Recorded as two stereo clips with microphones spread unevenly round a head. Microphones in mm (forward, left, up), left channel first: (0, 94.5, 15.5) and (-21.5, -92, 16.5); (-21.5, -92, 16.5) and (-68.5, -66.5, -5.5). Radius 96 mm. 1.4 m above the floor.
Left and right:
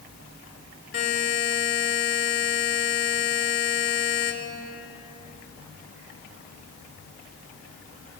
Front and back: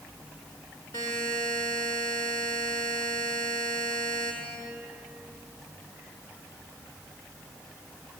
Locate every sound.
0.9 s a buzzer: 35° left, 4 m